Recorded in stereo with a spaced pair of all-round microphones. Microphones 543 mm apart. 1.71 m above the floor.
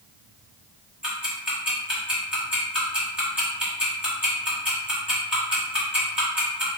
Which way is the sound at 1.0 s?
Centre (ahead or behind).